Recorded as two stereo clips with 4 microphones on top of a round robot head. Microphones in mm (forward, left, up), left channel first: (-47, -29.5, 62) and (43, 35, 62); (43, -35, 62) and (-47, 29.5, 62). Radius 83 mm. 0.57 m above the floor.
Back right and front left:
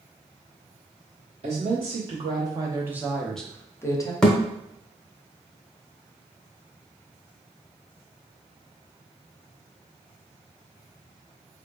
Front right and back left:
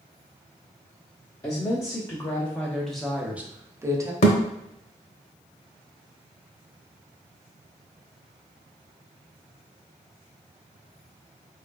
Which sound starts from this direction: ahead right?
A thud, at 4.2 s.